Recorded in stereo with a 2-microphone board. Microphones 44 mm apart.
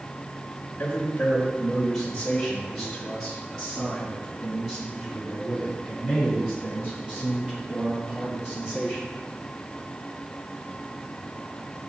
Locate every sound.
0.8 s a man speaking: 30° left (ahead or behind), 1.1 m; by 9.0 s 30° right (ahead or behind), 5 m